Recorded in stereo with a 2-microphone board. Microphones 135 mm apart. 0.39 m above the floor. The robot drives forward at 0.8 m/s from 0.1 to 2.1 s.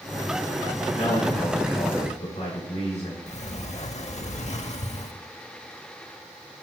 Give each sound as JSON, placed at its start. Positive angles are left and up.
{"t": 0.9, "sound": "a man speaking", "side_deg": 60, "distance_m": 4.5}
{"t": 3.3, "sound": "a sliding door", "side_deg": 60, "distance_m": 0.6}